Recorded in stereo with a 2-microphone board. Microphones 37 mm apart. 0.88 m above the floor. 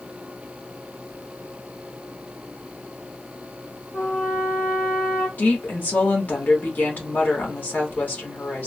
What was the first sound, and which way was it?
A trumpet, 70° left (ahead or behind).